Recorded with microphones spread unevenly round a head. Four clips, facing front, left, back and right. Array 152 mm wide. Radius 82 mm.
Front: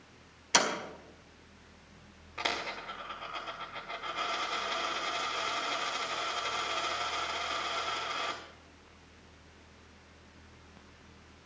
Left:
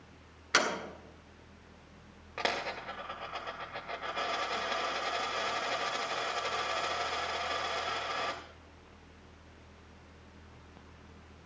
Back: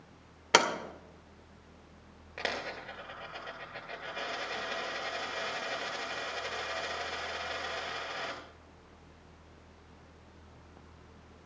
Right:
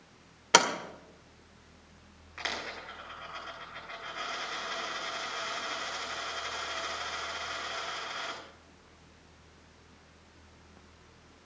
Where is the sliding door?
135° right, 2.0 m.